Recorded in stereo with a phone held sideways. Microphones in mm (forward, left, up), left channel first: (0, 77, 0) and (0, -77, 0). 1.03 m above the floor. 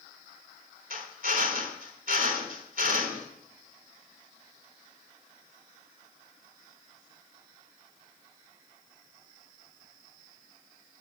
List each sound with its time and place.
0.9 s a drill: 65° right (ahead or behind), 3.5 m